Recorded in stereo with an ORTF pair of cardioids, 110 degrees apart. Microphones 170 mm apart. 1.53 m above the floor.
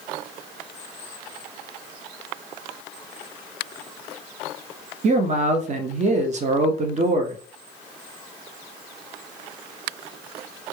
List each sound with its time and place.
5.0 s a man speaking: 45° right, 0.7 m